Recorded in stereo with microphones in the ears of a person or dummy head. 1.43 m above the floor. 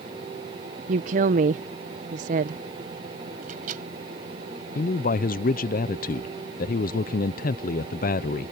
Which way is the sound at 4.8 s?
40° left (ahead or behind).